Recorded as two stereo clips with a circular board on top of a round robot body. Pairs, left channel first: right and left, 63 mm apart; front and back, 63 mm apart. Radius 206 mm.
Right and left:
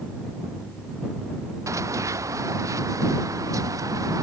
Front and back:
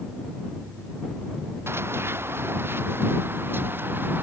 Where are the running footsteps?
130° left; by 4.2 s 125° left.